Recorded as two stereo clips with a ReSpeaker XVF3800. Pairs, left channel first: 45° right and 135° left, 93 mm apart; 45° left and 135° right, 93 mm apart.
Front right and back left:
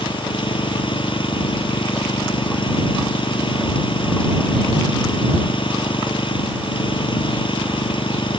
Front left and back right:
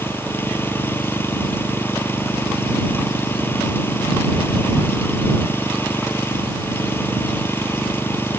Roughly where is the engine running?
Ahead.